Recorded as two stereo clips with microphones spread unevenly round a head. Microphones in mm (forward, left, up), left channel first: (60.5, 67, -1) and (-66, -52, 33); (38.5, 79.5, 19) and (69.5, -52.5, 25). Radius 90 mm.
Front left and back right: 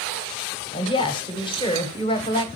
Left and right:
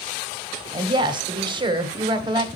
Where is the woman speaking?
20° right, 1.7 m.